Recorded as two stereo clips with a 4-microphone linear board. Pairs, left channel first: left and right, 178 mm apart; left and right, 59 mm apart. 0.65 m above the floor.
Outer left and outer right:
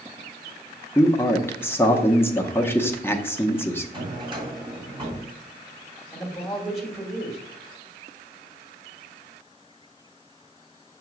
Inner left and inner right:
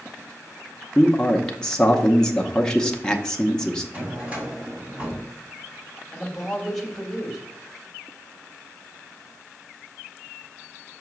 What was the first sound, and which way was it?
A man speaking, 10° left (ahead or behind).